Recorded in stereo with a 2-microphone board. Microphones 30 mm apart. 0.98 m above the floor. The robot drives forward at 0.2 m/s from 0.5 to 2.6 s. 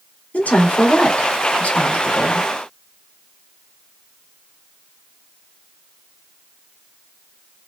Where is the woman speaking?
65° left (ahead or behind), 2 m; by 2.5 s 55° left (ahead or behind), 2.5 m.